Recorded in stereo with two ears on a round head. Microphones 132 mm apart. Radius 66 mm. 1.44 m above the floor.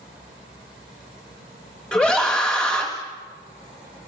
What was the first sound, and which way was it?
A scream, 10° left (ahead or behind).